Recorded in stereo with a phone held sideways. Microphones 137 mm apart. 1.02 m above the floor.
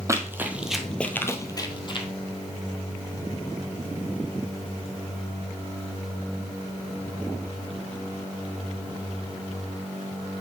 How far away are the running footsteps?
About 1.3 m.